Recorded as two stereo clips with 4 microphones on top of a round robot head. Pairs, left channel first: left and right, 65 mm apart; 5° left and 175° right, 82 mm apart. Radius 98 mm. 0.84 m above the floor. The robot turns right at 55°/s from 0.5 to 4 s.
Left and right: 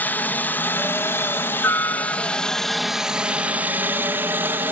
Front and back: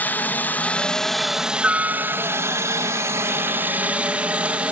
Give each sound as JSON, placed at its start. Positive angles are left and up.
{"t": 0.0, "sound": "a helicopter", "azimuth_deg": 55}